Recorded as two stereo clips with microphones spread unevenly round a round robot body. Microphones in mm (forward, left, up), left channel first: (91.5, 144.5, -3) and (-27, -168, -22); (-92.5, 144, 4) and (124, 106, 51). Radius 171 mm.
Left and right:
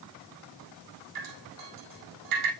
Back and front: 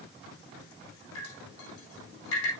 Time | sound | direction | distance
1.1 | dripping | 145° right | 4 m